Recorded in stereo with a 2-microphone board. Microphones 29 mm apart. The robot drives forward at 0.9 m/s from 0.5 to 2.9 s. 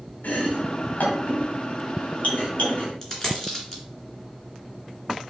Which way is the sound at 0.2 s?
80° left.